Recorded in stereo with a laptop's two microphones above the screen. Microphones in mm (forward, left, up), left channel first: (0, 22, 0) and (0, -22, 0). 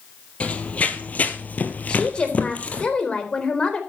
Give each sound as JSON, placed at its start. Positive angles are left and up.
{"t": 0.4, "sound": "running footsteps", "side_deg": 30, "distance_m": 1.6}
{"t": 1.9, "sound": "a woman speaking", "side_deg": 25, "distance_m": 3.5}